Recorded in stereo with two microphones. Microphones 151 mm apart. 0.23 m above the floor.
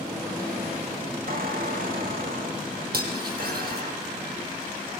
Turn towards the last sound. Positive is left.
turn(degrees=-80)